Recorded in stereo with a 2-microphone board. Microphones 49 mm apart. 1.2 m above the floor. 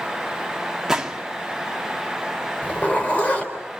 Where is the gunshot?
10° right (ahead or behind), 1.4 m.